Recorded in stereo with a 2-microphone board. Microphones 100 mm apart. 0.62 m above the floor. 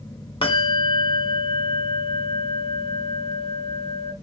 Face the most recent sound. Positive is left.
turn(degrees=70)  # may be behind; listen again after turning